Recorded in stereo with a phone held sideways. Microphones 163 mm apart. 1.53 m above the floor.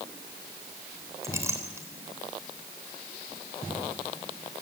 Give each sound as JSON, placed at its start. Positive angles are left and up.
{"t": 1.2, "sound": "a clink", "side_deg": -15, "distance_m": 4.0}